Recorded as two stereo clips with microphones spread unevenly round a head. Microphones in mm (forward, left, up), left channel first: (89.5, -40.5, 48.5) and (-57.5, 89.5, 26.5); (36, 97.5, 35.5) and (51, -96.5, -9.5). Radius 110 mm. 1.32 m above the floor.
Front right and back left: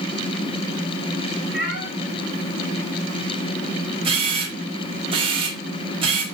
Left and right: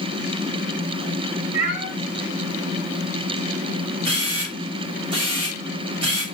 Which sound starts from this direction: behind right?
A camera shutter, at 4.0 s.